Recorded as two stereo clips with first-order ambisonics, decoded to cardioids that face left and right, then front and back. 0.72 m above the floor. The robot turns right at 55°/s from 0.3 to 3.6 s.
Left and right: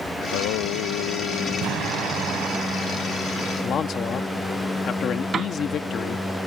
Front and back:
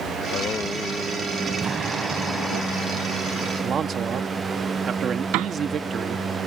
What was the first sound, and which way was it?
Singing, 55° left.